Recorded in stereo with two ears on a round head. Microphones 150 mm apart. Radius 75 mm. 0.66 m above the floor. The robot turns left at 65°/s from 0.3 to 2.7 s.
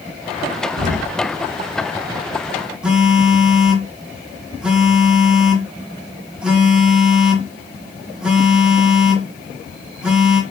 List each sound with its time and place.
0.8 s an explosion: 60° right (ahead or behind), 1.4 m; by 1.1 s 35° right (ahead or behind), 1.4 m
2.8 s a phone buzzing: 5° right (ahead or behind), 1.1 m